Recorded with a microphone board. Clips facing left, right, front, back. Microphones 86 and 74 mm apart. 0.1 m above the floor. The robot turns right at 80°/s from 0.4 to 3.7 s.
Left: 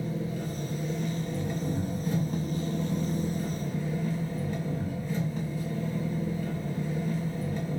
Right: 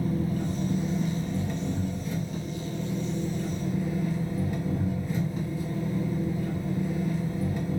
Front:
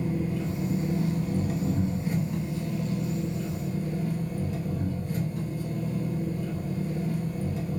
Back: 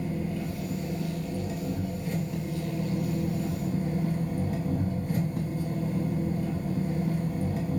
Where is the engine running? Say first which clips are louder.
Right 4 dB, front 2 dB; 65° right, 1.4 m; by 7.8 s 165° right, 1.4 m.